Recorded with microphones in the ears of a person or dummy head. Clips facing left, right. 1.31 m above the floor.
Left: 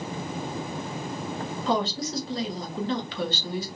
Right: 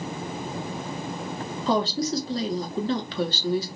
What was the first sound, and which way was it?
A woman speaking, 30° right (ahead or behind).